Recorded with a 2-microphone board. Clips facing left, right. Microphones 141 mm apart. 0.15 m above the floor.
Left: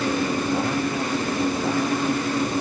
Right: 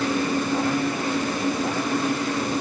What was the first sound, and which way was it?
Only background noise.